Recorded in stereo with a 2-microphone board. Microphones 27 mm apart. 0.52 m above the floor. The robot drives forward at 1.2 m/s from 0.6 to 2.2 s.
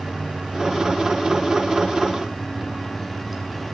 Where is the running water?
35° right (ahead or behind), 2.5 m; by 3.7 s 20° right (ahead or behind), 4.5 m.